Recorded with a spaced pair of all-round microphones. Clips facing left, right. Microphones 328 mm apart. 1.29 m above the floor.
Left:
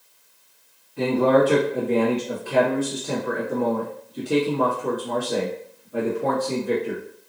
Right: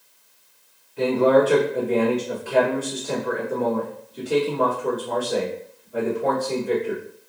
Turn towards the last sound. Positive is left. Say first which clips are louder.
# right 1 dB
turn(degrees=50)  # may be behind; listen again after turning